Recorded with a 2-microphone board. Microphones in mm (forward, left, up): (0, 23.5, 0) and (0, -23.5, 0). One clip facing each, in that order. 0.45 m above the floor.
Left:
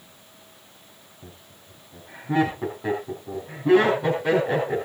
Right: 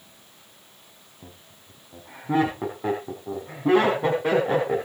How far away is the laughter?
About 4.5 m.